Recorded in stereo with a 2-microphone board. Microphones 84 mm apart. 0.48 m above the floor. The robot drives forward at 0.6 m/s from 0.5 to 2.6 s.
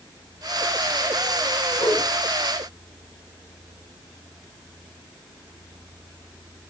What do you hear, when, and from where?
1.8 s a whoosh: 60° left (ahead or behind), 4 m